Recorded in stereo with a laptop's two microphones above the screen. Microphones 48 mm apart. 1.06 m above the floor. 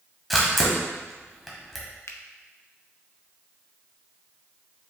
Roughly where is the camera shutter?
Centre.